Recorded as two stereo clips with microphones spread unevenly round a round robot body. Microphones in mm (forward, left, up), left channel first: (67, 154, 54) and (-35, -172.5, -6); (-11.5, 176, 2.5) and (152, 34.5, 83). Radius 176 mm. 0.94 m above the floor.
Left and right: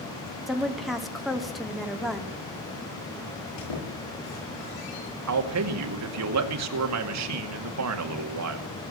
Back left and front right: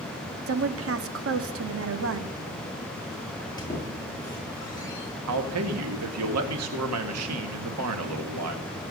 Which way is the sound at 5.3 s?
75° right.